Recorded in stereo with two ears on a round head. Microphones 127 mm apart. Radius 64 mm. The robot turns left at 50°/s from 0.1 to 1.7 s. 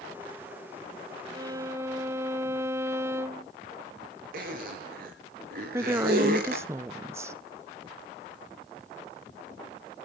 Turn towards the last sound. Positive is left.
turn(degrees=-20)  # may be behind; listen again after turning